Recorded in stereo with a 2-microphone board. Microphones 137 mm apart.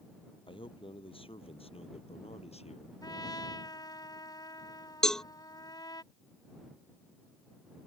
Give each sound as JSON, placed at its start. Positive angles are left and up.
{"t": 0.5, "sound": "a man speaking", "side_deg": 40}
{"t": 3.0, "sound": "a trumpet", "side_deg": 30}
{"t": 5.0, "sound": "a cowbell", "side_deg": 5}